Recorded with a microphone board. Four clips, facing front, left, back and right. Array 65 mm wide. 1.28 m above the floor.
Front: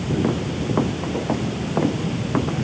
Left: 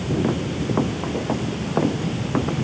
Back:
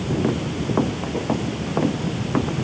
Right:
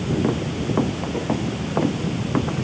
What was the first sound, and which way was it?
Only background noise.